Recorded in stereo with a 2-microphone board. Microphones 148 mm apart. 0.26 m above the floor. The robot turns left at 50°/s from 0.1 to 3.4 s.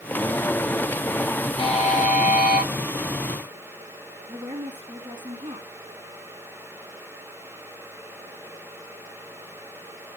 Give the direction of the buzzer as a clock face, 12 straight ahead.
7 o'clock.